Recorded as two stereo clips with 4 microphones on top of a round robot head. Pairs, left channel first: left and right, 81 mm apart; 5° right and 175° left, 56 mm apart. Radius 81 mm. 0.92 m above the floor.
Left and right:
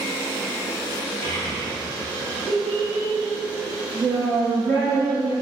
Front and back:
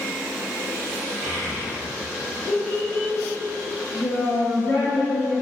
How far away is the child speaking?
About 1.2 m.